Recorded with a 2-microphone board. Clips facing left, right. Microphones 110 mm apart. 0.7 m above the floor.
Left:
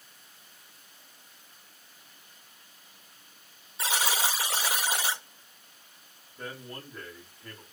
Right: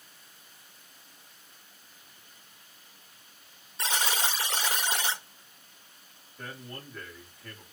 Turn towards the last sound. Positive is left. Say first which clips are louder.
# left 2 dB
turn(degrees=25)  # may be behind; listen again after turning